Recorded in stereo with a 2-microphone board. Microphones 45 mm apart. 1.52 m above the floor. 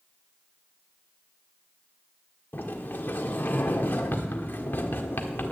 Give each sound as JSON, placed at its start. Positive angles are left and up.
{"t": 2.5, "sound": "a sliding door", "side_deg": 45, "distance_m": 1.5}